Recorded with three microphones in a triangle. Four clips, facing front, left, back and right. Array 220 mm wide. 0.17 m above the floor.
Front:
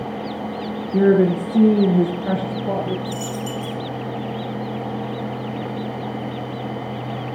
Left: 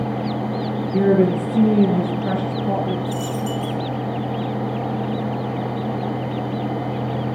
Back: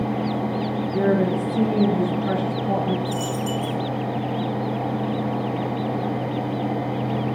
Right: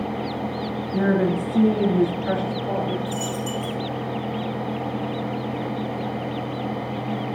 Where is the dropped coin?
30° left, 5 m.